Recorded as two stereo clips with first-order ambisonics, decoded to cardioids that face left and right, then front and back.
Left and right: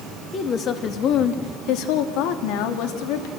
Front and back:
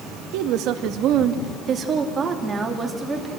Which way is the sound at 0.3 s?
150° left.